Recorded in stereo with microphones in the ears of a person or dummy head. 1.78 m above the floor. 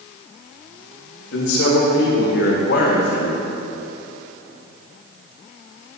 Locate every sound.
1.3 s a man speaking: 85° left, 3 m; by 3.5 s 60° left (ahead or behind), 1.5 m